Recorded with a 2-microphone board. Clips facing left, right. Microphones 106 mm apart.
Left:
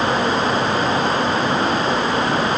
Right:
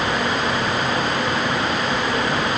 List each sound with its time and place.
Only background noise.